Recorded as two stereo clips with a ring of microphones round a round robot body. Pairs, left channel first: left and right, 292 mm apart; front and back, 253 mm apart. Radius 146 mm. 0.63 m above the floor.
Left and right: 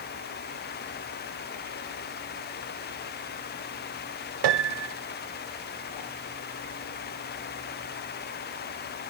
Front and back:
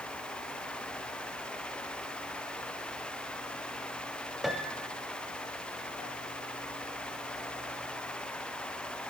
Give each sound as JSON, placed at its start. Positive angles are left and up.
{"t": 4.4, "sound": "a piano", "azimuth_deg": -90, "distance_m": 1.2}